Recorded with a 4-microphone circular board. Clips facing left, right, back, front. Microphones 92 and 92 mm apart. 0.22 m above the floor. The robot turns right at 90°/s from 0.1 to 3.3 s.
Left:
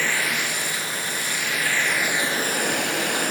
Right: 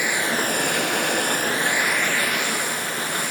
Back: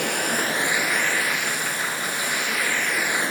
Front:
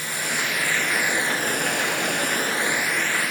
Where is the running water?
165° right, 1.1 m; by 3.3 s 120° left, 1.1 m.